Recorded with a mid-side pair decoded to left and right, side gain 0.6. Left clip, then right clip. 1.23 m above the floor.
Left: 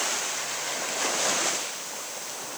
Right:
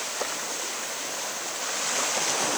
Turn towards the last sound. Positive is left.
No sound to turn to.